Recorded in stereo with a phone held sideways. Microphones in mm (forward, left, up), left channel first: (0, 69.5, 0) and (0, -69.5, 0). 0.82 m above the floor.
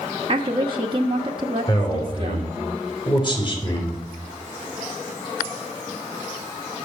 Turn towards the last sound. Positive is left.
turn(degrees=35)  # may be behind; listen again after turning